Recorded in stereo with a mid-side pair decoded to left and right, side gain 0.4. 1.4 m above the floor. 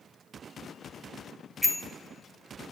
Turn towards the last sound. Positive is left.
turn(degrees=10)